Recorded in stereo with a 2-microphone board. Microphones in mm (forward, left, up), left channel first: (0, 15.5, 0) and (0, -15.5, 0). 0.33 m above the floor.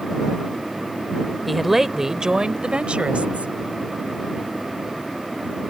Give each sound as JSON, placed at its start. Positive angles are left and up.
{"t": 1.5, "sound": "a woman speaking", "side_deg": 0}